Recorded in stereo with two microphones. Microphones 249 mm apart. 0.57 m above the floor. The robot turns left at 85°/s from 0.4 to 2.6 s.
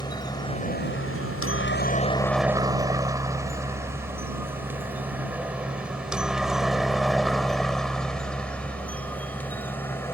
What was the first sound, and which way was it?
A helicopter, 15° left (ahead or behind).